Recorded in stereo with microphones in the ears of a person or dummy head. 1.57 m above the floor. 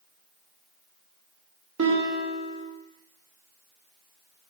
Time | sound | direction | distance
1.8 | a guitar | 75° right (ahead or behind) | 0.5 m